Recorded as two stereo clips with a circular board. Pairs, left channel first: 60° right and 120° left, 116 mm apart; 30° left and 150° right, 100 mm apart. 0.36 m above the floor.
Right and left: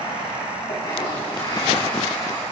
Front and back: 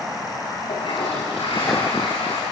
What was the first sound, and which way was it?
A toilet flushing, 5° right.